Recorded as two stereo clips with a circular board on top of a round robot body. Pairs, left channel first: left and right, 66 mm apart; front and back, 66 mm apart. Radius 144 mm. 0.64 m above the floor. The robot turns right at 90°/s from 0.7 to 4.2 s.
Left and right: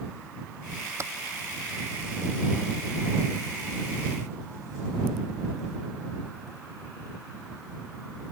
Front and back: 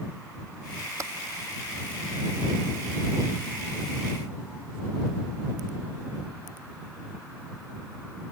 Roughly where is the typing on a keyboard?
Behind right.